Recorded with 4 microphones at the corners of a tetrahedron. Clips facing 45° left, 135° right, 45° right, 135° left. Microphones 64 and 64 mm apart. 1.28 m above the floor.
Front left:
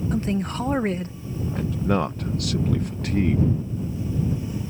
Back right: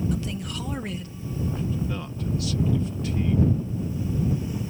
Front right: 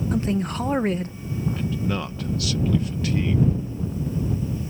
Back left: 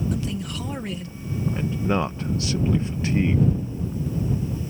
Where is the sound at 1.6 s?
70° left.